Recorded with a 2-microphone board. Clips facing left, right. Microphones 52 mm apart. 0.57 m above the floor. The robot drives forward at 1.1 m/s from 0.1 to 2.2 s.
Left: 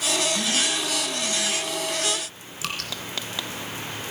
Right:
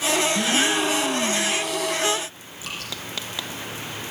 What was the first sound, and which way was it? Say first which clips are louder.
A gasp: right 5 dB; 35° right (ahead or behind).